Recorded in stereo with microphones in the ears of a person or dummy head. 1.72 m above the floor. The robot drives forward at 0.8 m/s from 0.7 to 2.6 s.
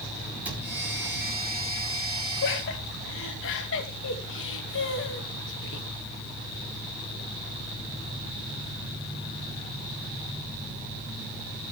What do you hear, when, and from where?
0.5 s a cupboard door: 10° right (ahead or behind), 5.5 m
2.4 s laughter: 65° left (ahead or behind), 2.5 m